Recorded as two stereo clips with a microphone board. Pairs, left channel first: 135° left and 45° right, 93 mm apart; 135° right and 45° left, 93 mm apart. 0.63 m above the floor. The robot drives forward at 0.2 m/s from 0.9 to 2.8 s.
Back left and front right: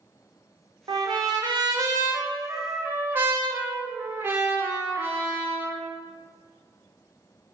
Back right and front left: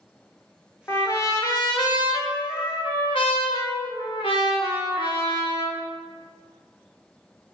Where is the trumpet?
75° right, 0.6 m; by 5.8 s 110° right, 0.6 m.